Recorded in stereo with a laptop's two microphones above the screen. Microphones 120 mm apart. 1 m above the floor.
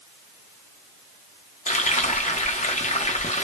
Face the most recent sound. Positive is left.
turn(degrees=80)